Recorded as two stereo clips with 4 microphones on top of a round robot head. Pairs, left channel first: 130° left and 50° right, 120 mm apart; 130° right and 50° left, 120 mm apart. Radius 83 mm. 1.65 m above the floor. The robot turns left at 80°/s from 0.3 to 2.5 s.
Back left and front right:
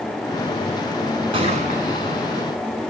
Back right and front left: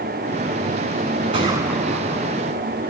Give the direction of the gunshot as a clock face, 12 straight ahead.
12 o'clock.